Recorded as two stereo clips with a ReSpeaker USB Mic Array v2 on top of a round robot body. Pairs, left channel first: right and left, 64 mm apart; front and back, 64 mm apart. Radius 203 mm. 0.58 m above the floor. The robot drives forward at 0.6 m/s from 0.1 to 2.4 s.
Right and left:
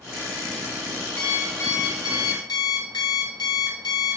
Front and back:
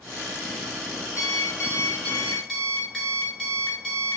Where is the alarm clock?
40° right, 1.0 m; by 4.2 s 85° right, 0.6 m.